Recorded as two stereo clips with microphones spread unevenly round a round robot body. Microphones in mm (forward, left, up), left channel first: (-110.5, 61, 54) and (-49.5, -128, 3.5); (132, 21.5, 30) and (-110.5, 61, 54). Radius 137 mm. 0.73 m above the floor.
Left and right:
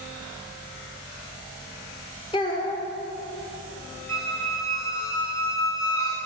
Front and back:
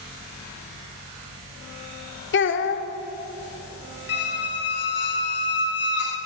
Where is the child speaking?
35° left, 0.9 m.